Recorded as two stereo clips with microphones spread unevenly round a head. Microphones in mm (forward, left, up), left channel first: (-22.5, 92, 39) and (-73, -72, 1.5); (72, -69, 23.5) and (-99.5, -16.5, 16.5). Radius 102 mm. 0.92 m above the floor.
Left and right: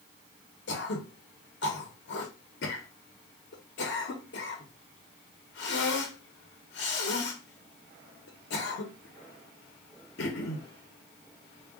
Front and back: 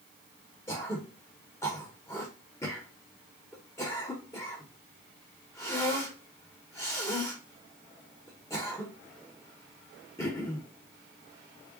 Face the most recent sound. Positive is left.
turn(degrees=60)